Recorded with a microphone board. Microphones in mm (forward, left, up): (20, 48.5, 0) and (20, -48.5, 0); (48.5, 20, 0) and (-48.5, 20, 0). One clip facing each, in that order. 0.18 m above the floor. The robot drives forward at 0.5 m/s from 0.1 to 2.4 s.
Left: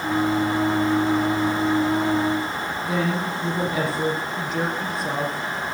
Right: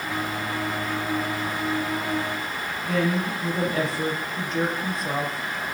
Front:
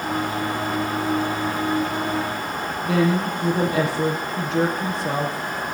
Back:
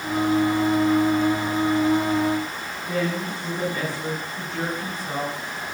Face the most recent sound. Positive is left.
turn(degrees=5)